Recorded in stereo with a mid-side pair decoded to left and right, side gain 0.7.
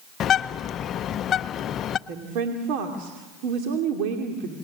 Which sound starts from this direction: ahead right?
A woman speaking, at 2.1 s.